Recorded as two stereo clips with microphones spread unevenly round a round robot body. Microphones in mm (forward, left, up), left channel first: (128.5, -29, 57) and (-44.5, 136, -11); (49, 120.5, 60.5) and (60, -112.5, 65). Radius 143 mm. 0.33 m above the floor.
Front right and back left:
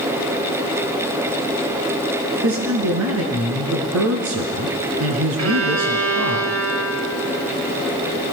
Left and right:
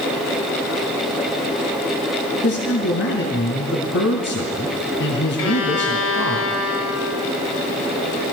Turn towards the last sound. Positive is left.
turn(degrees=130)